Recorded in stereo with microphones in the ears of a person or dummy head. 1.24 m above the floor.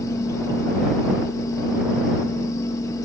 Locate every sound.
0.0 s a fan: 20° left (ahead or behind)